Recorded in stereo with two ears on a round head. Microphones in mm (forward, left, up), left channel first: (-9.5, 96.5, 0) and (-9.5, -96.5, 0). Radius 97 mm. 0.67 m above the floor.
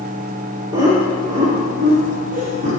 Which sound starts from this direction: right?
Laughter, at 0.7 s.